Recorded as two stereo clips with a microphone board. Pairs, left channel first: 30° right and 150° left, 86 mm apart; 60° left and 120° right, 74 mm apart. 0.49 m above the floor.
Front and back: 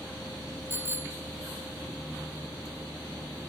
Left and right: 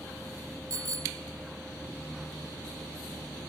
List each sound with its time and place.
0.7 s a bicycle bell: 150° right